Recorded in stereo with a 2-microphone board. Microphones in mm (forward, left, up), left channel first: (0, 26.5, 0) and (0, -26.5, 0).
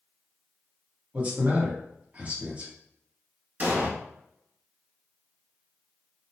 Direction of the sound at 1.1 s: 25° right (ahead or behind).